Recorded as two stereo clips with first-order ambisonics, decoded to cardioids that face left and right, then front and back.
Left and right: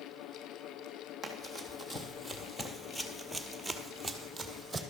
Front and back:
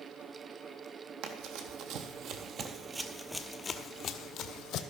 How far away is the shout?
No shout in this recording.